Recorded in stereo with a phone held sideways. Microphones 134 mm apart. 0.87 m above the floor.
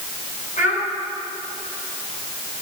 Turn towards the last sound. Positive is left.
turn(degrees=70)  # may be behind; listen again after turning